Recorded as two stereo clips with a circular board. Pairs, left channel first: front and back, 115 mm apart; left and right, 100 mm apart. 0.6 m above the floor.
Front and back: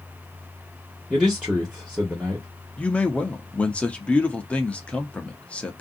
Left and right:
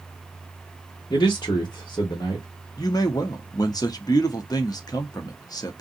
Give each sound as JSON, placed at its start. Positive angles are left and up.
{"t": 1.1, "sound": "a man speaking", "azimuth_deg": 95, "distance_m": 1.2}
{"t": 2.8, "sound": "a man speaking", "azimuth_deg": 75, "distance_m": 0.7}